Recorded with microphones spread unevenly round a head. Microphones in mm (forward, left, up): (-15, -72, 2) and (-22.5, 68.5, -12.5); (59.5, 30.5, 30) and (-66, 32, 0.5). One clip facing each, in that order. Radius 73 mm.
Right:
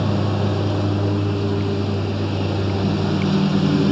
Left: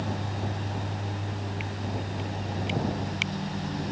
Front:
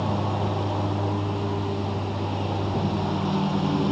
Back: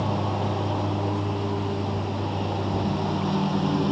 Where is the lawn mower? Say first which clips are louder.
Right 11 dB, even; 90° right.